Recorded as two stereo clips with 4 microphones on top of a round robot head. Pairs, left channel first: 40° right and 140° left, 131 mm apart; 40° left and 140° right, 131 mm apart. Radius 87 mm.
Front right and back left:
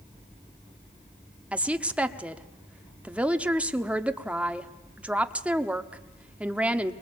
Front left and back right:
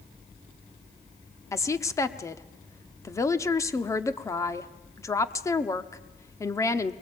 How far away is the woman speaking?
About 1.1 m.